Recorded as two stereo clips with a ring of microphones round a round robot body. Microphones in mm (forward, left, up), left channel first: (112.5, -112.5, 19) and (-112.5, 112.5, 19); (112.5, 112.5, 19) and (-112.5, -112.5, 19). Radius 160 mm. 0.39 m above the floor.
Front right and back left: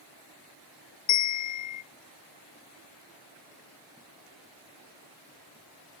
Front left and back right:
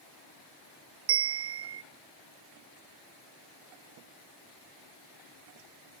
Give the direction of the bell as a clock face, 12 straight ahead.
3 o'clock.